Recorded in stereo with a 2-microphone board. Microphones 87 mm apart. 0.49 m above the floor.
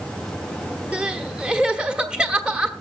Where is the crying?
10° right (ahead or behind), 1.2 m.